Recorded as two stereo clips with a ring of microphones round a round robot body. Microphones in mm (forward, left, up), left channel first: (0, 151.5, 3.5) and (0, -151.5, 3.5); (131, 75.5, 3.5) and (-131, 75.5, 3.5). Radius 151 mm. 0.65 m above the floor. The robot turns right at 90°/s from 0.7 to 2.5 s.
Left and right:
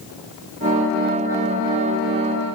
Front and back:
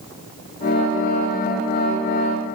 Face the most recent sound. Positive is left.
No sound to turn to.